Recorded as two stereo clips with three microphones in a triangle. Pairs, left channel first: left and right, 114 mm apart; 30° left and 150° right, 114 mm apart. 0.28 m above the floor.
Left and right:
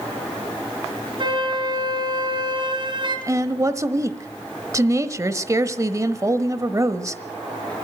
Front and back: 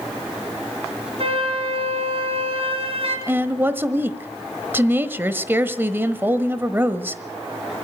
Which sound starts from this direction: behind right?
A flute, at 1.2 s.